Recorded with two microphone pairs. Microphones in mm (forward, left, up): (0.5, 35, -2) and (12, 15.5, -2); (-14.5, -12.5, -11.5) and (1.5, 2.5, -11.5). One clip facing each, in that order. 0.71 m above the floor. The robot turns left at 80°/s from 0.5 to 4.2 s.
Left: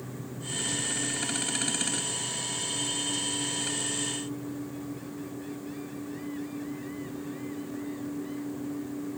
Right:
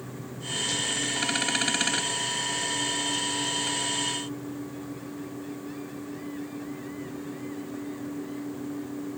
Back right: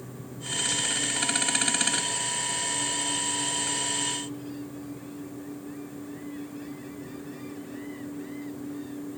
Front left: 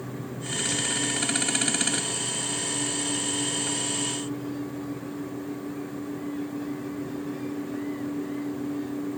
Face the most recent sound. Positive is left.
No sound to turn to.